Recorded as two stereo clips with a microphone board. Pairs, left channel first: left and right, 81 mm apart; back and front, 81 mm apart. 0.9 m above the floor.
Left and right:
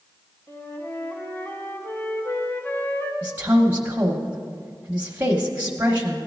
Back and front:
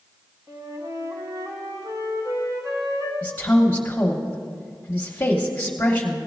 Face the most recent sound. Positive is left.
turn(degrees=-130)